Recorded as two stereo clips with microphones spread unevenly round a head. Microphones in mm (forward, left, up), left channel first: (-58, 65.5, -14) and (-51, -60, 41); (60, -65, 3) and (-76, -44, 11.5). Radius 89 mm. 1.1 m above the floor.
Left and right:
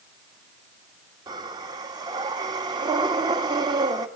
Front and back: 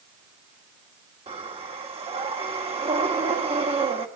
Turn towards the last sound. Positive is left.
turn(degrees=-140)